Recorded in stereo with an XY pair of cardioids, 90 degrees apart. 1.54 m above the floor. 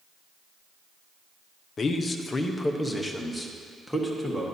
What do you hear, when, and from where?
1.8 s a man speaking: 45° left, 0.8 m; by 4.5 s 5° right, 1.8 m